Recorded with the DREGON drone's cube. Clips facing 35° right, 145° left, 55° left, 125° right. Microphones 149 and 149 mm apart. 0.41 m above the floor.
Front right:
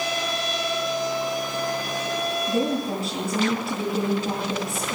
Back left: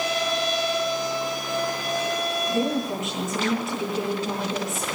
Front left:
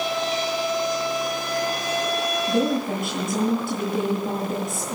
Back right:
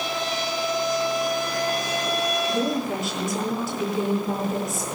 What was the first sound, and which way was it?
A woman speaking, 25° left.